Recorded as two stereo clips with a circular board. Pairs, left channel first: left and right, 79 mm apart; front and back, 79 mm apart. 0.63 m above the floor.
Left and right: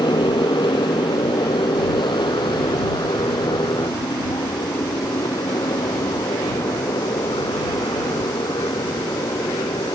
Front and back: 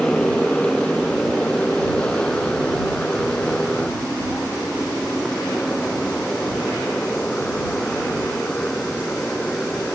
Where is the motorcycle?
80° left; by 9.9 s 75° left.